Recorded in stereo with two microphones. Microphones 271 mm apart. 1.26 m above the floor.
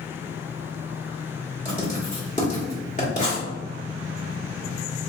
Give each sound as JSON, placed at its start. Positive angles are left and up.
{"t": 1.6, "sound": "writing", "side_deg": 30, "distance_m": 1.3}